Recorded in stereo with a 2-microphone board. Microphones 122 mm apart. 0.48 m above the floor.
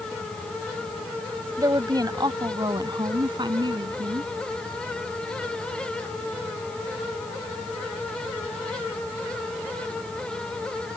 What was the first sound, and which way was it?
A woman speaking, 30° right (ahead or behind).